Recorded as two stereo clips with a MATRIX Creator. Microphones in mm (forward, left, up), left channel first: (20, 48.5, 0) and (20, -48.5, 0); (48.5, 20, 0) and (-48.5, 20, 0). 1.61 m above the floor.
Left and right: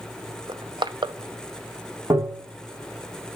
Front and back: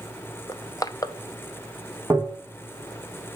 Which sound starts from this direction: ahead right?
Crushing, at 0.5 s.